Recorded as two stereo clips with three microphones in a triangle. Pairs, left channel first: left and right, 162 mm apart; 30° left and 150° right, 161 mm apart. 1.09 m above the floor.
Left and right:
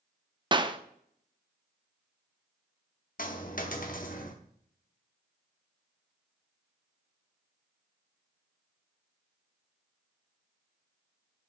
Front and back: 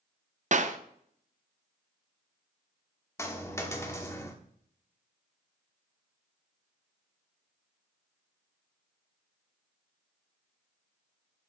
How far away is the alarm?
I don't hear an alarm.